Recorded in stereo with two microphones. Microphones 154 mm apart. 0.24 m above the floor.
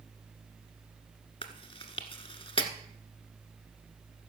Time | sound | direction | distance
1.4 | chewing | 35° left (ahead or behind) | 1.3 m